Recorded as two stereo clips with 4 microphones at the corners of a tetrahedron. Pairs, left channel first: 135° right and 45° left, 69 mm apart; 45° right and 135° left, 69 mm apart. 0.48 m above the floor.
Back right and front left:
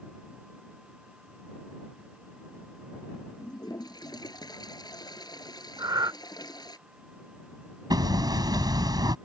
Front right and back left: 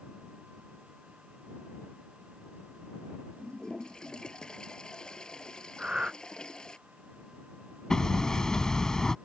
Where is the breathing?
55° left.